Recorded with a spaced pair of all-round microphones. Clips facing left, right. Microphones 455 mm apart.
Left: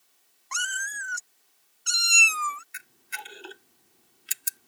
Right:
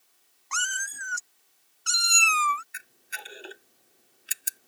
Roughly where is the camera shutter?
Centre.